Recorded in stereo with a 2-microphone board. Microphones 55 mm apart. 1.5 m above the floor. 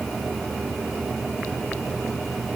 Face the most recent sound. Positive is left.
No sound to turn to.